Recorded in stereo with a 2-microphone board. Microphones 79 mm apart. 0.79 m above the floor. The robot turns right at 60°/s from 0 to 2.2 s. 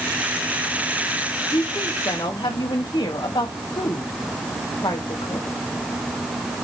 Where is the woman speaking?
45° left, 4 m; by 5.5 s 90° left, 4 m.